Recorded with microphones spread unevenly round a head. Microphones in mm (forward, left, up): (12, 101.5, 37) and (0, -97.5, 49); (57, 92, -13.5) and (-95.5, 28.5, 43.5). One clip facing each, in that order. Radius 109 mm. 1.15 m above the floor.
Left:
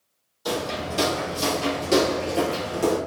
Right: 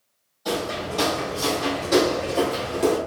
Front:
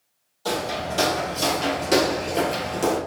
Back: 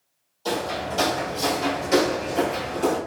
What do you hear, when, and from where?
0.5 s footsteps: 115° left, 1.8 m; by 3.0 s 10° left, 1.3 m